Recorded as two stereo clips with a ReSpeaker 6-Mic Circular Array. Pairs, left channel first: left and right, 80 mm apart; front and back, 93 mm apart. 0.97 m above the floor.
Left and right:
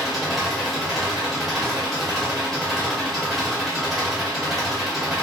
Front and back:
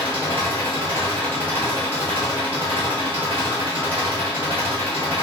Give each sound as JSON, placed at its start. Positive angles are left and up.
{"t": 0.0, "sound": "an engine running", "azimuth_deg": -175, "distance_m": 1.1}